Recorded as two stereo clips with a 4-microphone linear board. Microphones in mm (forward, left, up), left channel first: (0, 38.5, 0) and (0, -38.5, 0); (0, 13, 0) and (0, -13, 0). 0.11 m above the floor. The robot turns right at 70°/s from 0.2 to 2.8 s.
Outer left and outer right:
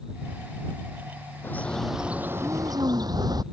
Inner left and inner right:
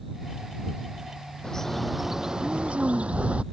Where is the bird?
150° left; by 3.4 s 115° right.